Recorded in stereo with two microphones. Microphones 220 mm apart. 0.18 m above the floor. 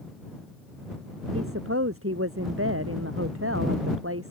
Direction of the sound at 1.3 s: 80° right.